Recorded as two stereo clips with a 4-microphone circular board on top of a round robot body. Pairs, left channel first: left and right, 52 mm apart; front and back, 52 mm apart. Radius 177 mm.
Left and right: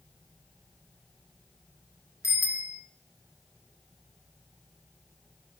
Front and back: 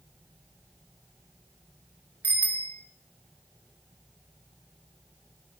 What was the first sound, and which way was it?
A bicycle bell, 120° left.